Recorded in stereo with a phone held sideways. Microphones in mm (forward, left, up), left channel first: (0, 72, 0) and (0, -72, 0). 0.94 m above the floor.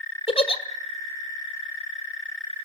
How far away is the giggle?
About 1.7 m.